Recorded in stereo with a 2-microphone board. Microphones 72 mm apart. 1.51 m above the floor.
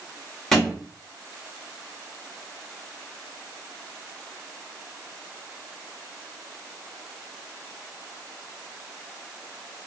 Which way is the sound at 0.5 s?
5° left (ahead or behind).